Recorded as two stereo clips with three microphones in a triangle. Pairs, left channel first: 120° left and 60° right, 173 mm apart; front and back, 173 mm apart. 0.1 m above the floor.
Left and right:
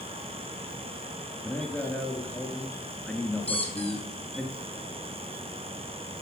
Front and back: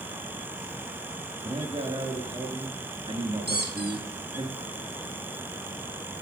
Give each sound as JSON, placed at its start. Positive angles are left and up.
{"t": 1.4, "sound": "a man speaking", "azimuth_deg": -165, "distance_m": 1.6}
{"t": 3.5, "sound": "a squeak", "azimuth_deg": 170, "distance_m": 2.0}